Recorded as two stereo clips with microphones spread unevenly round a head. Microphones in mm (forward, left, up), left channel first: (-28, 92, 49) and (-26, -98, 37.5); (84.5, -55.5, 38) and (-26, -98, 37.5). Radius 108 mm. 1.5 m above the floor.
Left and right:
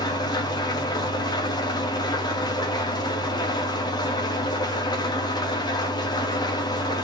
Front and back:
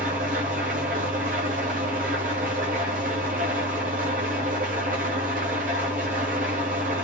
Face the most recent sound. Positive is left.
turn(degrees=160)